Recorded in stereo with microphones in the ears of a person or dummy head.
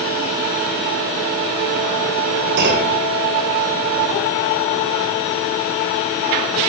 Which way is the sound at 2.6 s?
60° right (ahead or behind).